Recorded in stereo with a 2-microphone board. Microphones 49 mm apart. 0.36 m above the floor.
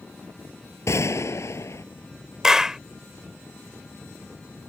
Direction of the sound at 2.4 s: 10° right (ahead or behind).